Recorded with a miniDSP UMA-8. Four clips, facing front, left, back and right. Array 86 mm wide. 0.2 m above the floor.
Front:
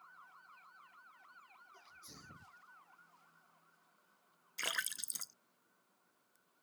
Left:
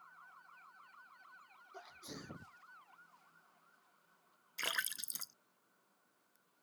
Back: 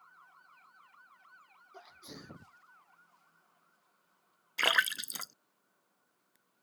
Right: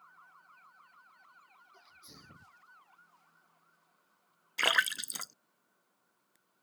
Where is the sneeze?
140° left.